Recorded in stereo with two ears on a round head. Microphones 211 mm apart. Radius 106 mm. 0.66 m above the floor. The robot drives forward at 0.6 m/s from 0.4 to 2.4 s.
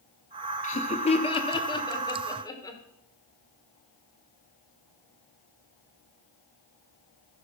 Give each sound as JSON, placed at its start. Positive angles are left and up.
{"t": 0.6, "sound": "laughter", "side_deg": 30, "distance_m": 1.0}